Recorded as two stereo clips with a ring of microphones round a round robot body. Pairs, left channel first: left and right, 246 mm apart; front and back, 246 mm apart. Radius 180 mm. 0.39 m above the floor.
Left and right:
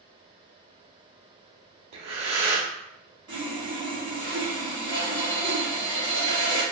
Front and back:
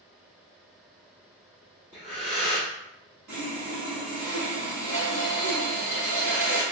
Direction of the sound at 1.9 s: 100° right.